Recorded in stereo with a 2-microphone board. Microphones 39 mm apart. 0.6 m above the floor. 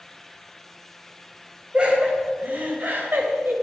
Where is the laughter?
30° right (ahead or behind), 3 m; by 3.5 s 70° right (ahead or behind), 3 m.